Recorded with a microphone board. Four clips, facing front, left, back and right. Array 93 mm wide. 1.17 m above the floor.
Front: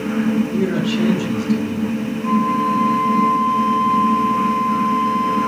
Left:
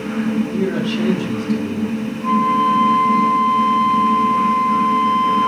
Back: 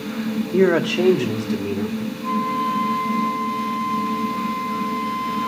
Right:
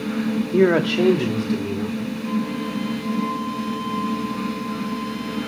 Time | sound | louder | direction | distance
0.5 | a man speaking | right 3 dB, back 2 dB | 130° right | 2.5 m
2.2 | a flute | left 13 dB, front 5 dB | 90° left | 7 m